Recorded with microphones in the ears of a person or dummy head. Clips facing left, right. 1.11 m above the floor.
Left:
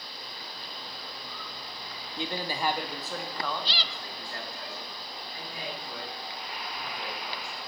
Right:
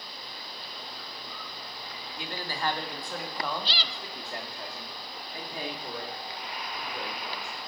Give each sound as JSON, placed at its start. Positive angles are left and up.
{"t": 2.2, "sound": "a man speaking", "side_deg": 20, "distance_m": 1.2}